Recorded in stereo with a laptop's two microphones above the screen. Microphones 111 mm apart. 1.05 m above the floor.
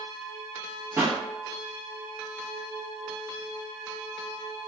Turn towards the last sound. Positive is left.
turn(degrees=-25)  # may be behind; listen again after turning